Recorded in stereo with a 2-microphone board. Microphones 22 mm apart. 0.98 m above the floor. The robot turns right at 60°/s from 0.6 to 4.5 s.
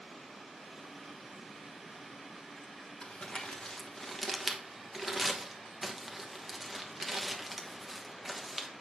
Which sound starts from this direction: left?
Crumpling, at 3.0 s.